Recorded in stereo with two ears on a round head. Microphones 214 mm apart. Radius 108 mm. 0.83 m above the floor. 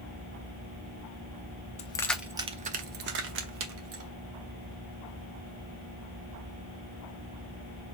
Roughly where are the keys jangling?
Left.